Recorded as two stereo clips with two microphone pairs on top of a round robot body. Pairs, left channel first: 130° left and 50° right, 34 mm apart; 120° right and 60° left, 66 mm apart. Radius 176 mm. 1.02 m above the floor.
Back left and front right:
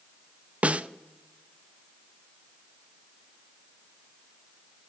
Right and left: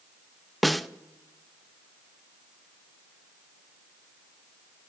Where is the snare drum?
20° right, 0.6 m.